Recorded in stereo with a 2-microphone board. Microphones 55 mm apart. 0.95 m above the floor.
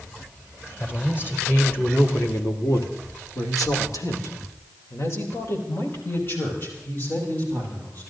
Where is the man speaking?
35° left (ahead or behind), 4 m; by 8.1 s 30° left (ahead or behind), 7.5 m.